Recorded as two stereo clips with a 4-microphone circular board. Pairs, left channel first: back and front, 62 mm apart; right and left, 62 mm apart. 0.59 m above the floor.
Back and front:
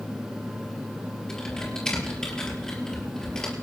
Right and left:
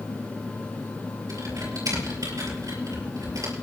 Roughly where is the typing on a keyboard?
Left.